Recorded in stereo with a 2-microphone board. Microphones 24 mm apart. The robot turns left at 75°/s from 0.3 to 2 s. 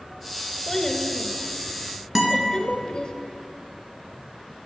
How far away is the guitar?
About 2 m.